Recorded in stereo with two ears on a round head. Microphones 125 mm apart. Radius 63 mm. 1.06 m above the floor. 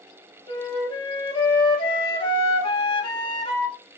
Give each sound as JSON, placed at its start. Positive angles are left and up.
{"t": 0.5, "sound": "a flute", "side_deg": 35, "distance_m": 0.7}